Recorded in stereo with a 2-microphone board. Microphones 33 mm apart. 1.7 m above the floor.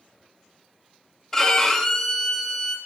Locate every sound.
1.3 s a violin: 15° left (ahead or behind), 1.9 m